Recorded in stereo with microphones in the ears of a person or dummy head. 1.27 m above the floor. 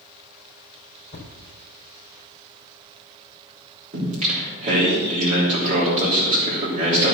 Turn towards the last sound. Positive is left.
turn(degrees=-40)  # may be behind; listen again after turning